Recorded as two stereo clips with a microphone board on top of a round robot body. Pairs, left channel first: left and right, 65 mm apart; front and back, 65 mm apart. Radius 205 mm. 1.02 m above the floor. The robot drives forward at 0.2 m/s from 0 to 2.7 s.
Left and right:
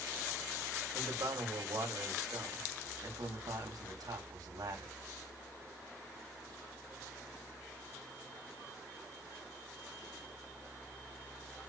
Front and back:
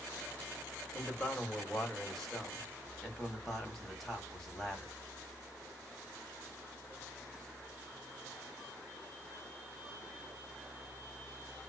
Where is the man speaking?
75° right, 1.9 m; by 4.9 s 85° right, 1.8 m.